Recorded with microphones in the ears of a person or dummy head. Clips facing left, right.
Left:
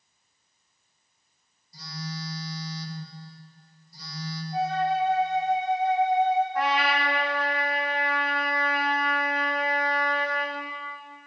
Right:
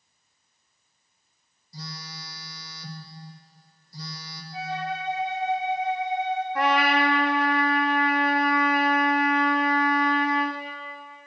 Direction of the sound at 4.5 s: 45° left (ahead or behind).